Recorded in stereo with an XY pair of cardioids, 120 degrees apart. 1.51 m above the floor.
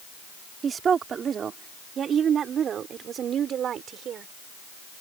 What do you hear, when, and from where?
0.6 s a woman speaking: 40° right; by 4.3 s 55° right